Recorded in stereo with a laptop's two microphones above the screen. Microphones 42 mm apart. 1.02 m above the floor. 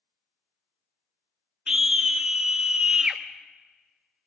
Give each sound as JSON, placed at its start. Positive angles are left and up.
{"t": 1.7, "sound": "a scream", "side_deg": -20, "distance_m": 0.5}